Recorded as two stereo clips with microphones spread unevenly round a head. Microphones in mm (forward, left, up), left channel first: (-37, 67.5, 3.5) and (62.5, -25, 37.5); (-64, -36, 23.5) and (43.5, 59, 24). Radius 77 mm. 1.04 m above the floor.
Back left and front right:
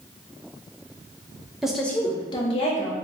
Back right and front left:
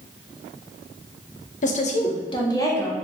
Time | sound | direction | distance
1.6 | a woman speaking | 135° right | 0.6 m